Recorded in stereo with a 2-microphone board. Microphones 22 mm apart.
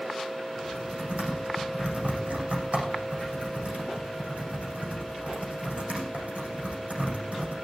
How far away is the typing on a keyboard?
About 7.5 m.